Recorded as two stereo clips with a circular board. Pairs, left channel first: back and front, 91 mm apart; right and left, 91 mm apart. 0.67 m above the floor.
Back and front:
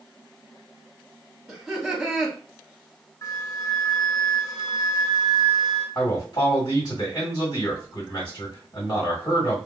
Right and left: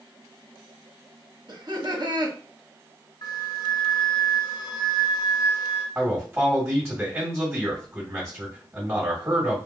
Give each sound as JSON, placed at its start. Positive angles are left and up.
{"t": 1.5, "sound": "laughter", "azimuth_deg": 80, "distance_m": 1.1}
{"t": 3.2, "sound": "a flute", "azimuth_deg": -125, "distance_m": 1.0}
{"t": 6.0, "sound": "a man speaking", "azimuth_deg": 160, "distance_m": 1.9}